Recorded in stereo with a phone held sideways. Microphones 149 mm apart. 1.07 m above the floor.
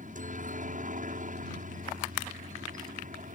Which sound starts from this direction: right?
A helicopter, at 0.0 s.